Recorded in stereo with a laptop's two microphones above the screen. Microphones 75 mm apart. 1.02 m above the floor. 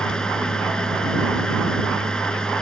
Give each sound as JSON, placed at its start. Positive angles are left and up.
{"t": 0.0, "sound": "a machine running", "side_deg": 10}